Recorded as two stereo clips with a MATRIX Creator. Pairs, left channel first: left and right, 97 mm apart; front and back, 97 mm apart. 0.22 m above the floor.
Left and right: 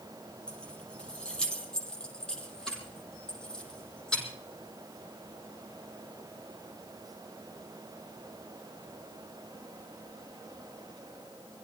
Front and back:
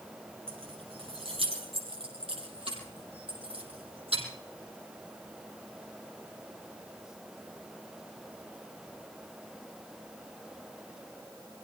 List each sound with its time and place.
0.5 s keys jangling: 170° left, 3.5 m; by 4.2 s 175° left, 6 m